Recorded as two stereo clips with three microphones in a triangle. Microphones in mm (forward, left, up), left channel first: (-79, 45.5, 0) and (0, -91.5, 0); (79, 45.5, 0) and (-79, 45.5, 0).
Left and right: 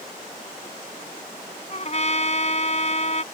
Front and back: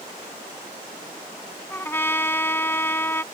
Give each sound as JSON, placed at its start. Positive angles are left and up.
{"t": 1.7, "sound": "a trumpet", "azimuth_deg": 75}